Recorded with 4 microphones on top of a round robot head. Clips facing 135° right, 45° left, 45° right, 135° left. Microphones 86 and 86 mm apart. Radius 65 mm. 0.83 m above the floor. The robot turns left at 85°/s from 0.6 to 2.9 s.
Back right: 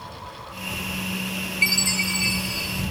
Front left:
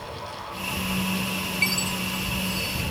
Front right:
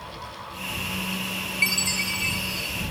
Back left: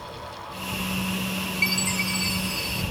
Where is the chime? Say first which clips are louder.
Back right 5 dB, even; 95° right; by 2.8 s 165° left.